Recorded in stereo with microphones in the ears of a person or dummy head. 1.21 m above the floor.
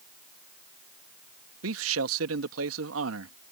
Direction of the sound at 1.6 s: 70° right (ahead or behind).